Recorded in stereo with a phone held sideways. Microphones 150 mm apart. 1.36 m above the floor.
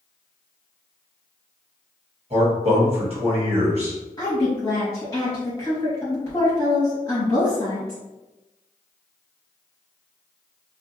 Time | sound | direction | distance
2.3 | a man speaking | 40° right (ahead or behind) | 1.2 m
4.2 | a woman speaking | 20° left (ahead or behind) | 1.5 m